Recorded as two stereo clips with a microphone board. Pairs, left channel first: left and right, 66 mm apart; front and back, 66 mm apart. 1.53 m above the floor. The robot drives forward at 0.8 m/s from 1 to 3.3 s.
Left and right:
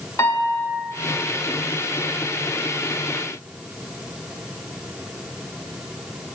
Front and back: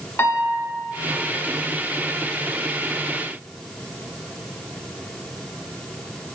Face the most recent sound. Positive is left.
turn(degrees=105)